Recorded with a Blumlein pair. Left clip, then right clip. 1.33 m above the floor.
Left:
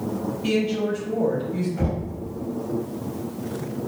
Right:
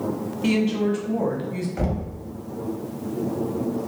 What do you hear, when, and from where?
0.4 s a woman speaking: 30° right, 1.0 m
1.8 s knocking: 55° right, 0.7 m